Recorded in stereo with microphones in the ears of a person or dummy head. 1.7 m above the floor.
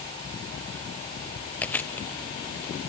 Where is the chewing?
5° left (ahead or behind), 0.6 m.